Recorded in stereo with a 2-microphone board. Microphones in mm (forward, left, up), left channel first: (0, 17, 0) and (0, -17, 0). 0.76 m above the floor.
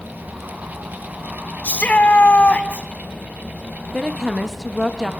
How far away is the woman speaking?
About 1.0 m.